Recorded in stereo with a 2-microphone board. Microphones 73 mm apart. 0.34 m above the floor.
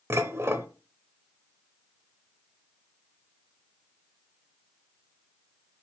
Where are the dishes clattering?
35° right (ahead or behind), 0.6 m.